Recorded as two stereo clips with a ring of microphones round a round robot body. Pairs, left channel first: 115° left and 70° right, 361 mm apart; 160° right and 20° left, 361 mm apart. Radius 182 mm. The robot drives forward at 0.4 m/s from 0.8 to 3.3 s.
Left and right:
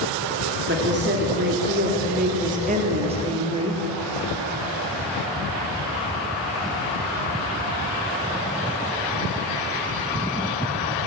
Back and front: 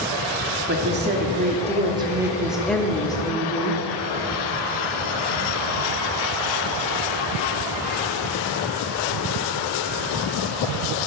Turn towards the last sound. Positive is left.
turn(degrees=-110)